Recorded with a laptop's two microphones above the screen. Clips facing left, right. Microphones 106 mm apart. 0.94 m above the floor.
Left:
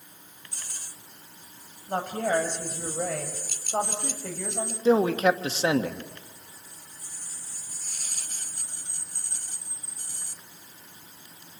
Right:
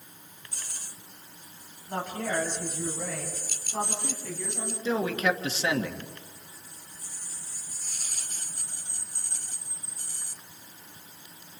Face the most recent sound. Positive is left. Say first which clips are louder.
# left 6 dB
turn(degrees=35)  # may be behind; listen again after turning